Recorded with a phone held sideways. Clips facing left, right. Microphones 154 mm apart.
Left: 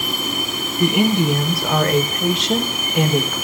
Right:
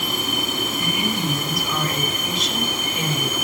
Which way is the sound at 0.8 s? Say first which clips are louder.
Left 12 dB; 70° left (ahead or behind).